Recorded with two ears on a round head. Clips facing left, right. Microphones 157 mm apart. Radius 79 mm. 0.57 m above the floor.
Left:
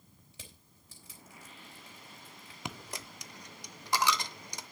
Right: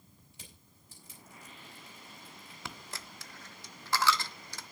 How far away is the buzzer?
I don't hear a buzzer.